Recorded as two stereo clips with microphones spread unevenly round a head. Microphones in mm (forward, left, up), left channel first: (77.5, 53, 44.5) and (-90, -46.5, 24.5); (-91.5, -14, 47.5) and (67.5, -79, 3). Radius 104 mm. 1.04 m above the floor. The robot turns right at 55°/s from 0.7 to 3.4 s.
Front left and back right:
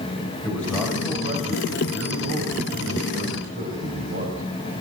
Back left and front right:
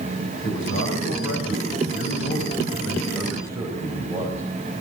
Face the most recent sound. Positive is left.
turn(degrees=-100)